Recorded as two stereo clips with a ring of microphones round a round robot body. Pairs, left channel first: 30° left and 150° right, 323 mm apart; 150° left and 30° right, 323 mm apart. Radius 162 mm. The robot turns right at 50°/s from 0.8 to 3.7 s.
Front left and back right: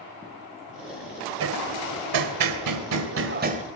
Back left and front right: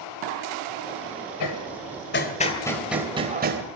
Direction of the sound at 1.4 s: 165° left.